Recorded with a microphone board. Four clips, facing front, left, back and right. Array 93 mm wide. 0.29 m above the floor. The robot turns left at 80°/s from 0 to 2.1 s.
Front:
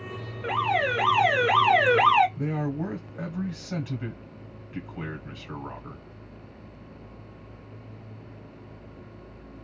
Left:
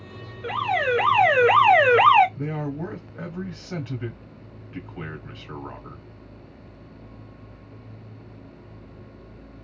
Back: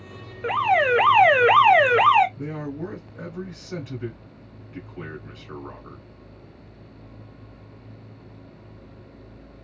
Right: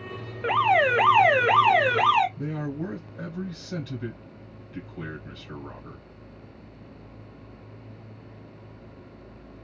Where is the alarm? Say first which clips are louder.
Right 3 dB, back 5 dB; 115° right, 0.6 m; by 2.3 s 110° left, 0.6 m.